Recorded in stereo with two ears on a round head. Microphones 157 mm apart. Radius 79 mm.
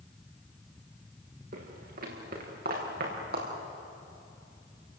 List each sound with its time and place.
1.5 s footsteps: 50° right (ahead or behind), 6 m; by 3.5 s 60° right (ahead or behind), 7.5 m